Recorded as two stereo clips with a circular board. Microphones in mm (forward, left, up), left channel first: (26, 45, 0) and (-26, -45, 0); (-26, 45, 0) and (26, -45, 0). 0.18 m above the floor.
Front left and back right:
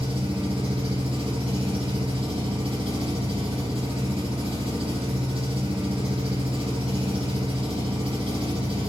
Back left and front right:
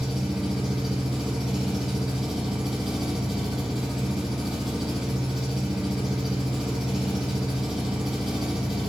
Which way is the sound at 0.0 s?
150° right.